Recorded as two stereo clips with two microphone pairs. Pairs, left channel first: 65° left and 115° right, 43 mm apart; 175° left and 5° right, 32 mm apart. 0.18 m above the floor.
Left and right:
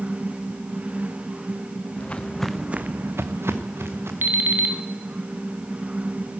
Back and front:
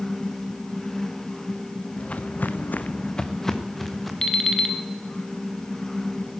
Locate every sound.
2.0 s footsteps: 125° left, 1.1 m; by 4.1 s 100° right, 2 m
4.2 s an alarm clock: 115° right, 1.1 m